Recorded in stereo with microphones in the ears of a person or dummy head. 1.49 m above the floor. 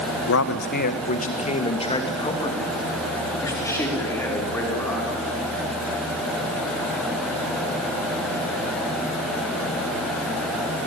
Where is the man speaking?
70° left (ahead or behind), 1.1 m; by 5.2 s 10° left (ahead or behind), 5 m.